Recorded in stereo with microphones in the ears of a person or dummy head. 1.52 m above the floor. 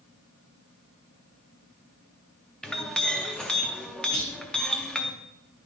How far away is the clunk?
About 1.1 m.